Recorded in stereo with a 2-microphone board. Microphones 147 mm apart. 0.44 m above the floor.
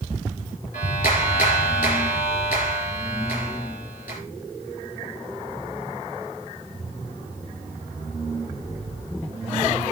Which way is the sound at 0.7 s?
75° left (ahead or behind).